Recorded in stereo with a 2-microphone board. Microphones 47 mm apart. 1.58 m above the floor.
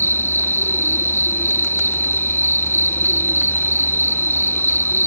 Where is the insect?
50° left (ahead or behind).